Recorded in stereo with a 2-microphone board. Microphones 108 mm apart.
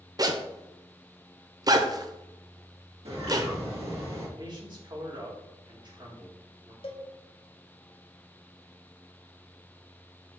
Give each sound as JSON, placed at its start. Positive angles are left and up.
{"t": 0.2, "sound": "a zipper", "side_deg": -35, "distance_m": 0.6}
{"t": 3.0, "sound": "a bird", "side_deg": -65, "distance_m": 2.5}
{"t": 4.4, "sound": "a man speaking", "side_deg": -45, "distance_m": 2.0}
{"t": 6.8, "sound": "a cowbell", "side_deg": 55, "distance_m": 0.8}